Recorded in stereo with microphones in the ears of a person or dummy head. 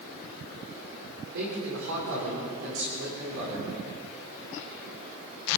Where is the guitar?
No guitar in this recording.